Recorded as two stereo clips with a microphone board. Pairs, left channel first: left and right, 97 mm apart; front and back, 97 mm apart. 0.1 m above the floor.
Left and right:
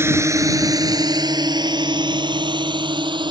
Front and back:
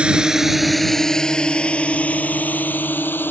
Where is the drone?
115° right; by 3.3 s 65° right.